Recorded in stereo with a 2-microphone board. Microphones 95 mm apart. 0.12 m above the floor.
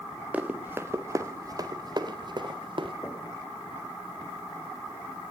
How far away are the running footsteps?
About 3.5 m.